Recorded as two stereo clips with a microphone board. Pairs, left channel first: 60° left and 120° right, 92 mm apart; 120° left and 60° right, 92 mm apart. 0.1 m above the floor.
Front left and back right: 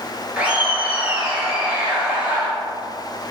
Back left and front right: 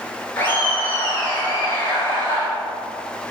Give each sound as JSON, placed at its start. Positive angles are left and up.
{"t": 0.4, "sound": "laughter", "azimuth_deg": 175, "distance_m": 1.4}